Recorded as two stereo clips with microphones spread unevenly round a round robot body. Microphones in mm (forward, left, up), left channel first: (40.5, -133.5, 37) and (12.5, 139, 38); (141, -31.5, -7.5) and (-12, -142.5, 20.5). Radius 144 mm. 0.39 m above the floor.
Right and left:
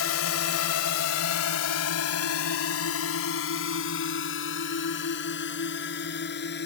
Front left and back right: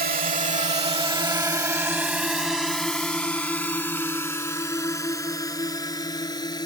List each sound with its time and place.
0.0 s a drone: 110° right; by 6.7 s 30° right